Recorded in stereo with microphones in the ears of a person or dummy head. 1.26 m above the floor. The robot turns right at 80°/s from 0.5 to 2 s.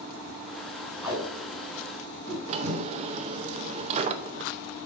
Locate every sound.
1.0 s tape being pulled: 15° right (ahead or behind), 3 m; by 2.8 s 80° right, 3 m
2.5 s a drawer: 40° right (ahead or behind), 0.6 m